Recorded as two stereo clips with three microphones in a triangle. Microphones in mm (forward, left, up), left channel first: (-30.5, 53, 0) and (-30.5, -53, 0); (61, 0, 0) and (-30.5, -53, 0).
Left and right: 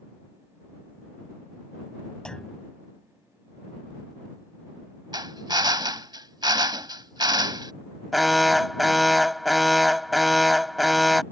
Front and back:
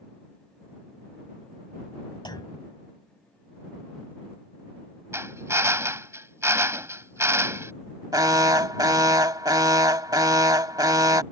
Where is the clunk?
10° left.